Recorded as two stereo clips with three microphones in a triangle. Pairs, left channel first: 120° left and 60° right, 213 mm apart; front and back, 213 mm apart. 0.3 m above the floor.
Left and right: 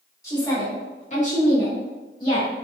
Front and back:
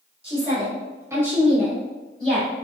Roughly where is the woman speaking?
Behind.